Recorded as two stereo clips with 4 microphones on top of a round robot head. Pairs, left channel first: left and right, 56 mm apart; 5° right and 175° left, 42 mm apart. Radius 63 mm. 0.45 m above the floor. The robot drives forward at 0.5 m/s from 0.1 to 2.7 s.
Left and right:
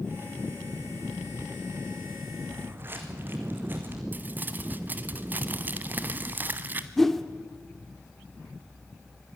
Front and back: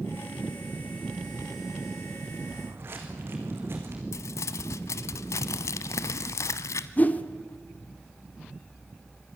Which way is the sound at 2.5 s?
140° right.